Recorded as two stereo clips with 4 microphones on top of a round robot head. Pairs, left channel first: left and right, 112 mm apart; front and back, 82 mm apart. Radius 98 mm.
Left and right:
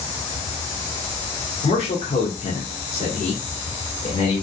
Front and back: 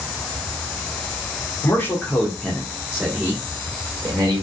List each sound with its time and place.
1.6 s a man speaking: 65° left, 1.7 m; by 4.4 s 135° left, 1.9 m